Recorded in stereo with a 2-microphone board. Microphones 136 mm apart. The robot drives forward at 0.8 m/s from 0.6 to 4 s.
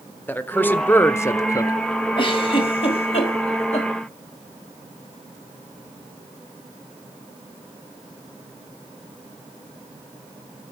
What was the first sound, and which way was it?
A man speaking, 15° left (ahead or behind).